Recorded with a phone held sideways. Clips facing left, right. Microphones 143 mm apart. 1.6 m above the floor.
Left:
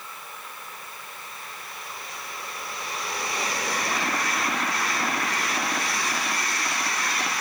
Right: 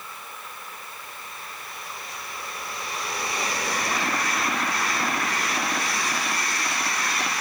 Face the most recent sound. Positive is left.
No sound to turn to.